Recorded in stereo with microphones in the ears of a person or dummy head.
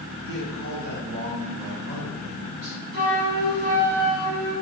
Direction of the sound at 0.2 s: 60° right (ahead or behind).